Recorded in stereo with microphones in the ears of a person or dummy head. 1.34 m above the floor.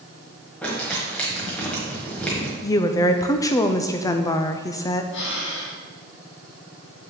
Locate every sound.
0.6 s crumpling: 5° left (ahead or behind), 1.2 m
2.6 s a woman speaking: 20° left (ahead or behind), 0.6 m
5.1 s breathing: 65° left (ahead or behind), 1.6 m